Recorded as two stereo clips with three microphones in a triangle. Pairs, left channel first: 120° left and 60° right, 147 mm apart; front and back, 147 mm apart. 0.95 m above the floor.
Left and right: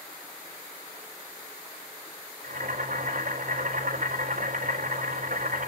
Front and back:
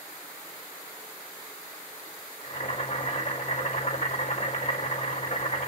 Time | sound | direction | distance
2.4 | boiling | 35° right | 4 m